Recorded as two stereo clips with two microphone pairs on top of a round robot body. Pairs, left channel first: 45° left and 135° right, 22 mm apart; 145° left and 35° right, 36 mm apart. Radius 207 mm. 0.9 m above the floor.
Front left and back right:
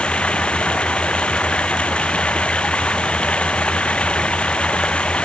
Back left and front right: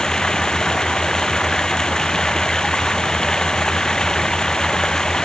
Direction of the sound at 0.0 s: 75° left.